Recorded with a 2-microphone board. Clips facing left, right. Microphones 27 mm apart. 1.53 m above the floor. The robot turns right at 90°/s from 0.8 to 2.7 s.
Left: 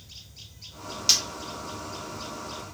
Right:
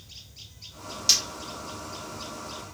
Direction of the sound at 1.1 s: 15° left (ahead or behind).